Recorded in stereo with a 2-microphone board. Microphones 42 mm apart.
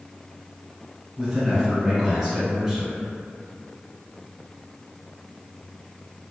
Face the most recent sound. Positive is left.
turn(degrees=-10)  # may be behind; listen again after turning